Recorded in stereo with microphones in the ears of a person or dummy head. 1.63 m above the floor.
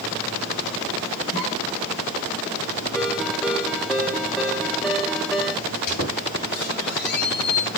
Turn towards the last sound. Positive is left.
turn(degrees=55)  # may be behind; listen again after turning